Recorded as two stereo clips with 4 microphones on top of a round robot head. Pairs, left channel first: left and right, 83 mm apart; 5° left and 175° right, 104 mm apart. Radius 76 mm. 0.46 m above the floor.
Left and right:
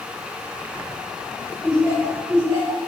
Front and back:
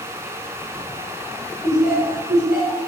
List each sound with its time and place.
1.6 s laughter: 130° right, 1.5 m